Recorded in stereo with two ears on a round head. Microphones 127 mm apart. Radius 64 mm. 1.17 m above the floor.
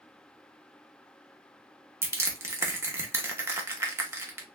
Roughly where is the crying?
I don't hear crying.